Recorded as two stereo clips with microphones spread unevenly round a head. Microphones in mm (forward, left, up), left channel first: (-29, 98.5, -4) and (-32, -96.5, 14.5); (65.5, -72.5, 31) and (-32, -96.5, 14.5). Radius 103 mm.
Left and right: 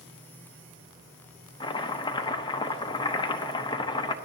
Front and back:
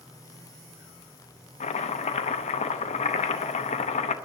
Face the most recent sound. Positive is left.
turn(degrees=20)